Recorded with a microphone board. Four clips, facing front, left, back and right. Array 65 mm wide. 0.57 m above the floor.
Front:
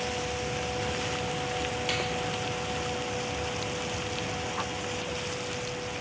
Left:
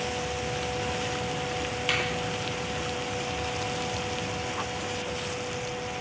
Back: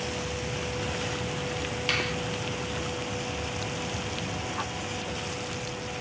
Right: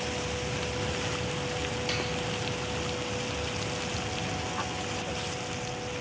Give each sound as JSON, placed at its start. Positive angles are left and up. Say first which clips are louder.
{"t": 1.9, "sound": "a finger snap", "louder": "left 4 dB, back 5 dB", "azimuth_deg": 135, "distance_m": 0.8}